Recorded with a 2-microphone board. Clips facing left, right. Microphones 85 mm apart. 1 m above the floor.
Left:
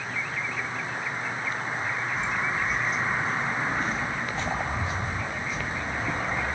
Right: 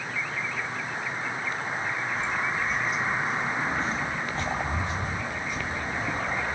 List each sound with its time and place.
2.1 s footsteps: 20° left (ahead or behind), 1.0 m; by 6.5 s 65° right (ahead or behind), 2.5 m